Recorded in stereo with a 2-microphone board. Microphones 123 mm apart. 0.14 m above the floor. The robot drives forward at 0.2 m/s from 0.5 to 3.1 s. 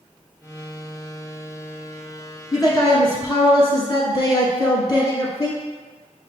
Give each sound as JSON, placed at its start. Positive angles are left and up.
{"t": 2.5, "sound": "a man speaking", "side_deg": 25, "distance_m": 1.3}